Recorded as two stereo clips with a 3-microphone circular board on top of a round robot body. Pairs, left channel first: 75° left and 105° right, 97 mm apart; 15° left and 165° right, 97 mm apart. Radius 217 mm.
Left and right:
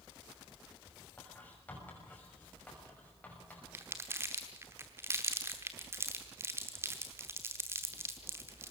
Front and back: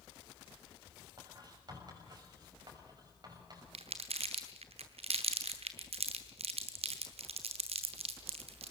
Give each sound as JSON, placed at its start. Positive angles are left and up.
{"t": 1.2, "sound": "writing", "azimuth_deg": 150, "distance_m": 6.0}
{"t": 3.7, "sound": "crumpling", "azimuth_deg": -170, "distance_m": 0.9}